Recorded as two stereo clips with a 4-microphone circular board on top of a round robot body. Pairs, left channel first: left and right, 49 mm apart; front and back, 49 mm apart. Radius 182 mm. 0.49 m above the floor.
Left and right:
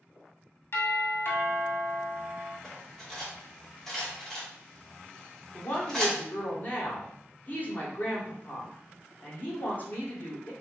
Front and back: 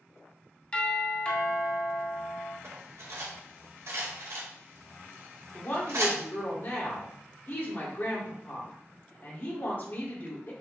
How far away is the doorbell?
About 2 m.